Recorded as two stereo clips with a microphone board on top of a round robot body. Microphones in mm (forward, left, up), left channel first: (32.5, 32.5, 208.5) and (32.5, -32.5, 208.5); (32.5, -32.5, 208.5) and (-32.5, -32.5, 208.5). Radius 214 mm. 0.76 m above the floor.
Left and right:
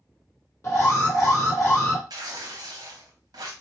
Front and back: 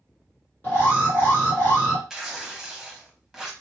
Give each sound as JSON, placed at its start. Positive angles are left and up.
{"t": 0.6, "sound": "an alarm", "azimuth_deg": 55, "distance_m": 3.0}
{"t": 2.1, "sound": "tearing paper", "azimuth_deg": -95, "distance_m": 0.6}